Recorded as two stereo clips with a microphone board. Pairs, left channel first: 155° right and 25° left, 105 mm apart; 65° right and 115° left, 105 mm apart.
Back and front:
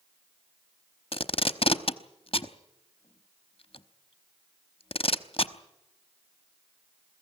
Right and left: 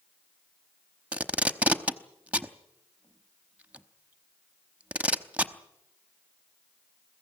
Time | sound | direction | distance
1.1 | tape being pulled | 175° right | 0.9 m